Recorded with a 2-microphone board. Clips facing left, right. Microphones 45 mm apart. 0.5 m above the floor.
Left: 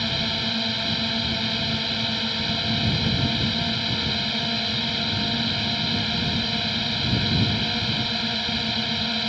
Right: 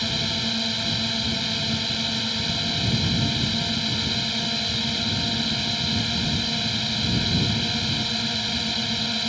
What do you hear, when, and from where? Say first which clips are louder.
0.0 s a drone: left 1 dB; 10° left (ahead or behind)